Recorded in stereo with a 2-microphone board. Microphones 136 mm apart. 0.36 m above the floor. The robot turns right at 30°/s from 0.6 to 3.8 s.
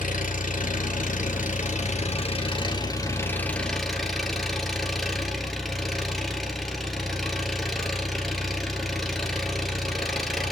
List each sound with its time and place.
0.0 s an engine running: 85° left, 1.8 m; by 10.5 s straight behind, 1.8 m